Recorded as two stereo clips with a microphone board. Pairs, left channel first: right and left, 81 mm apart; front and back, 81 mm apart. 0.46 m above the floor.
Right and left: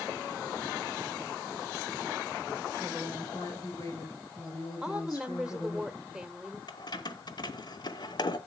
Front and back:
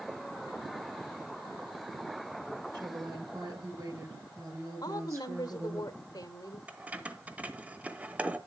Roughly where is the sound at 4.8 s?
Ahead.